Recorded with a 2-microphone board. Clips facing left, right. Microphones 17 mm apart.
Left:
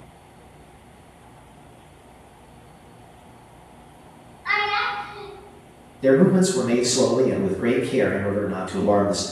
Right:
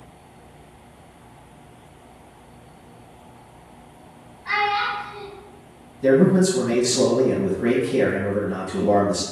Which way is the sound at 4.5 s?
50° left (ahead or behind).